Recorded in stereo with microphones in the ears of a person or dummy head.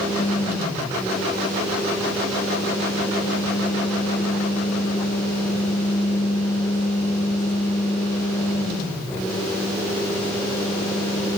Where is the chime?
No chime in this recording.